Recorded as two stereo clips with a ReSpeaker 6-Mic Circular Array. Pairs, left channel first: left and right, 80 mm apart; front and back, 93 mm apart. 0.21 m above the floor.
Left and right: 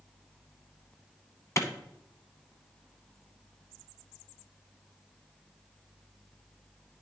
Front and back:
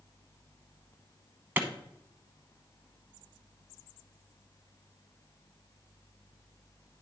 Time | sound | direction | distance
1.6 | a clap | 120° left | 1.0 m